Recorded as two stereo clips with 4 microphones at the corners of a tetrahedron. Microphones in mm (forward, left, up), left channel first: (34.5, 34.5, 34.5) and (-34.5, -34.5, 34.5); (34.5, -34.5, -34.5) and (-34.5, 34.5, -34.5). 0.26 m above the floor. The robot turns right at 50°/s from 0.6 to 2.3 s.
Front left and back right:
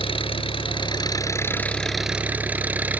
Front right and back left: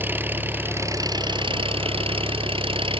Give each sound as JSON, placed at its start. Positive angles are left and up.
{"t": 0.0, "sound": "an engine running", "azimuth_deg": 65}